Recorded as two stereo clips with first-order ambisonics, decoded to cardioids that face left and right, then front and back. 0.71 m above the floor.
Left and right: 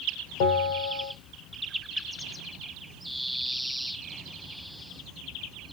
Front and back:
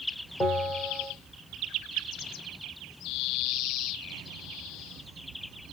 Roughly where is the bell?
Left.